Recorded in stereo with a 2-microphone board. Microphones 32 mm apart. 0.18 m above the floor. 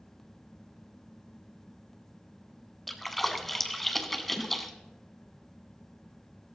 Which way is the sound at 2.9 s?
5° left (ahead or behind).